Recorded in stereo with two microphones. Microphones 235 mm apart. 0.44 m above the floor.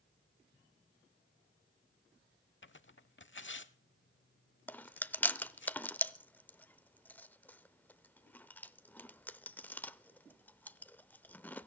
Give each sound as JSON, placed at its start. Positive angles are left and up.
{"t": 2.6, "sound": "tearing paper", "side_deg": 55, "distance_m": 0.6}
{"t": 4.7, "sound": "chewing", "side_deg": 5, "distance_m": 0.5}